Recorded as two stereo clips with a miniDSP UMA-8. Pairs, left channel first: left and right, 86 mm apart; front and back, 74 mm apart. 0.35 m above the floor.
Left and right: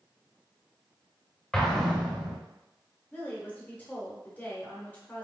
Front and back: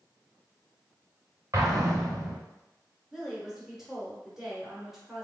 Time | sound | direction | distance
1.5 | an explosion | 170° left | 1.0 m
3.1 | a woman speaking | 105° left | 1.0 m